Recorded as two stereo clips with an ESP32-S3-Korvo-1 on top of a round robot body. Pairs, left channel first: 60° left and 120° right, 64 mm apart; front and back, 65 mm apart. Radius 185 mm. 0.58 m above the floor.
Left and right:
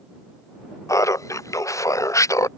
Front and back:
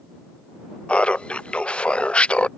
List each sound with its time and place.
0.9 s laughter: 70° left